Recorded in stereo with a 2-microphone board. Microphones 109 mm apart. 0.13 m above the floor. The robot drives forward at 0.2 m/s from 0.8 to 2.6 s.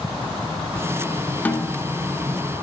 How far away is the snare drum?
About 1.0 m.